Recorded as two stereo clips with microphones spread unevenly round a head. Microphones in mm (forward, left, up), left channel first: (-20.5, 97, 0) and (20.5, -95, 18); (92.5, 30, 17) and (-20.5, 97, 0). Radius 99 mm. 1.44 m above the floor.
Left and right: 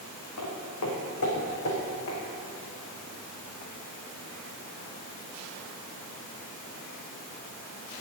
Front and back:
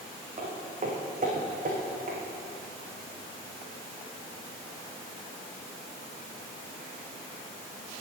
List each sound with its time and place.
0.4 s footsteps: 115° left, 4.5 m; by 2.2 s 125° left, 6 m